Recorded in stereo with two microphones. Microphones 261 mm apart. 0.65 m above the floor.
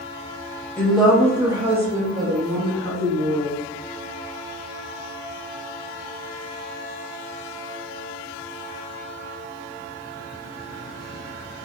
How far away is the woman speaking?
About 1.0 m.